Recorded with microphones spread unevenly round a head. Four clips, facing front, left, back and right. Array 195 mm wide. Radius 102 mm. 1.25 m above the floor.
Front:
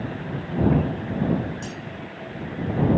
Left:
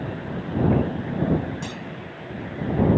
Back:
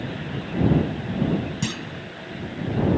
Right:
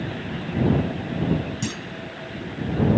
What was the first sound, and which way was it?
A clunk, 165° right.